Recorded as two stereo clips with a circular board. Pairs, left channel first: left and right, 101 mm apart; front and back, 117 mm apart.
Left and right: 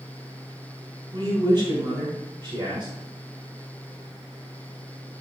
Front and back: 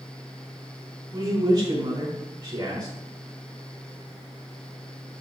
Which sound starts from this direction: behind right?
A man speaking, at 1.1 s.